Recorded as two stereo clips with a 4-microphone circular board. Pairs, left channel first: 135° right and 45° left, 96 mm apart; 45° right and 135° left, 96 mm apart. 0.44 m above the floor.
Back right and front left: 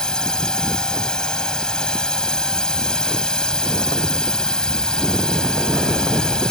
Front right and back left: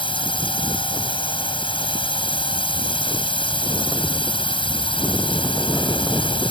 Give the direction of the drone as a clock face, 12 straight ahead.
2 o'clock.